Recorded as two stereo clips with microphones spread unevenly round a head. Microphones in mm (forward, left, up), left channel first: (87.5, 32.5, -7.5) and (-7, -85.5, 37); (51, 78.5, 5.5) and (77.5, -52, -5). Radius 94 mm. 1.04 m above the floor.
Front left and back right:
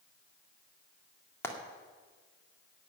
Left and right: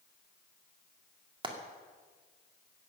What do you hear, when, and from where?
1.4 s frying: 25° right, 2 m